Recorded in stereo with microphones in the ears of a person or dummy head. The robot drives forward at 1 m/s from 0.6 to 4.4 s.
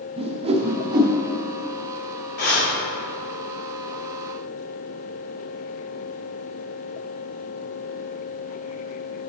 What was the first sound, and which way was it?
A whoosh, 30° right (ahead or behind).